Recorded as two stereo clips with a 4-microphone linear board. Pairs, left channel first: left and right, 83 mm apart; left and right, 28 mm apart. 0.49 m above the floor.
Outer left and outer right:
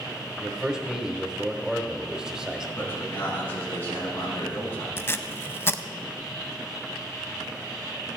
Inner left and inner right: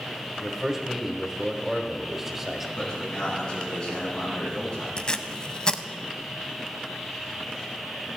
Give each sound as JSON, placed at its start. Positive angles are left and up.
{"t": 0.4, "sound": "a man speaking", "side_deg": -10, "distance_m": 1.5}
{"t": 2.8, "sound": "a man speaking", "side_deg": 25, "distance_m": 4.5}
{"t": 5.0, "sound": "tape being pulled", "side_deg": 30, "distance_m": 0.5}